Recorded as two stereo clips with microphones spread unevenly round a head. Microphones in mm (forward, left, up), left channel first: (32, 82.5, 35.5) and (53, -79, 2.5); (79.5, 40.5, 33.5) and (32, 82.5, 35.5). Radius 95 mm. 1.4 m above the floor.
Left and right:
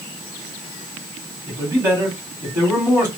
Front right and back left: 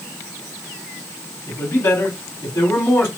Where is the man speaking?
10° right, 3 m.